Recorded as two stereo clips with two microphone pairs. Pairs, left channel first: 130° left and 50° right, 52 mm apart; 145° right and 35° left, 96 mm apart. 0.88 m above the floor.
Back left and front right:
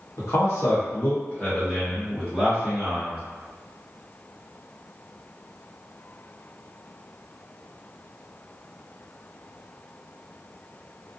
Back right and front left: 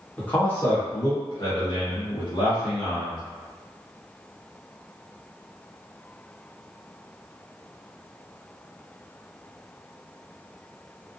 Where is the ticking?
I don't hear ticking.